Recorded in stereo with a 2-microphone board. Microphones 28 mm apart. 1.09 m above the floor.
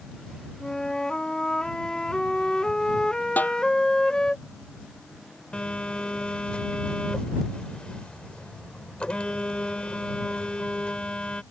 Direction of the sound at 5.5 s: 35° left (ahead or behind).